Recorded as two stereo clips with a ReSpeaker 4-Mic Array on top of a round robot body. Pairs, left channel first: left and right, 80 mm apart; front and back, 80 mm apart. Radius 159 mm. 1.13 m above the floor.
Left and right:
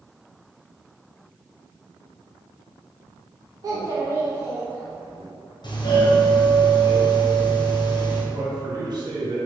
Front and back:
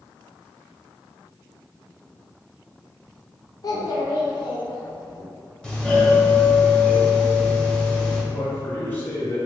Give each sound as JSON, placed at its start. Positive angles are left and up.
{"t": 3.6, "sound": "a child speaking", "azimuth_deg": -45, "distance_m": 0.7}
{"t": 5.6, "sound": "a doorbell", "azimuth_deg": 80, "distance_m": 0.9}
{"t": 8.3, "sound": "a man speaking", "azimuth_deg": -65, "distance_m": 1.5}